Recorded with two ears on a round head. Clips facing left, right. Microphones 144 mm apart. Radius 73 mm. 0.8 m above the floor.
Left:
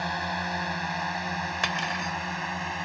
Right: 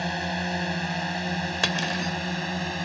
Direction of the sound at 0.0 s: 30° right (ahead or behind).